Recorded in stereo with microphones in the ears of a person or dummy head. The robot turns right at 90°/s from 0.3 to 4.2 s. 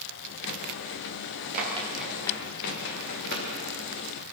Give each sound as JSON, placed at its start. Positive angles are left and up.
{"t": 1.5, "sound": "running footsteps", "side_deg": -55, "distance_m": 8.0}